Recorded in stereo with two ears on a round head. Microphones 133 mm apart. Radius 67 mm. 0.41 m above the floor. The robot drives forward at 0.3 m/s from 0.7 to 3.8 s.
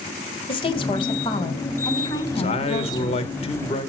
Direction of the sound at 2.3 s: 35° left (ahead or behind).